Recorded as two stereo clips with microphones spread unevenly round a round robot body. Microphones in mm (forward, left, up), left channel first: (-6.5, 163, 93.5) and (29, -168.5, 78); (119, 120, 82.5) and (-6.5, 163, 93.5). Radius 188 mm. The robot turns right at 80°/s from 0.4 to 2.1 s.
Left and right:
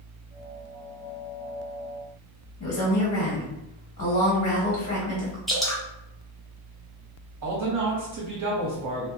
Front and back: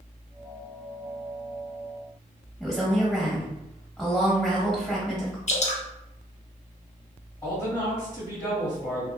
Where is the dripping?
5° left, 0.8 m.